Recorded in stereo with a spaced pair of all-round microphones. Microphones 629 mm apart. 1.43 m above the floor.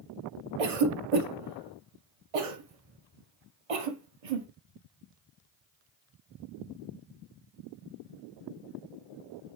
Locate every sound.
0.6 s a cough: 60° right (ahead or behind), 0.7 m